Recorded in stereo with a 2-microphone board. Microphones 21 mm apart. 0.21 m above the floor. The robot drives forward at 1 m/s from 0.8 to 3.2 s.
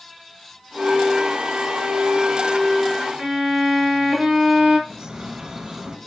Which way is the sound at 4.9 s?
45° right (ahead or behind).